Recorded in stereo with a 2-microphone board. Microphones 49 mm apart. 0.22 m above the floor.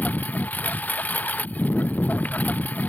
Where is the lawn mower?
35° left (ahead or behind).